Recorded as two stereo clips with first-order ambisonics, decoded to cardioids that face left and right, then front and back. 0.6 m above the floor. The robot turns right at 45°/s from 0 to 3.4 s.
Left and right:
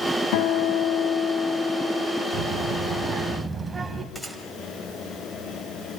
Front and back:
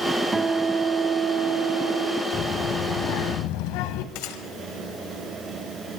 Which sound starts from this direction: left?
A guitar, at 0.3 s.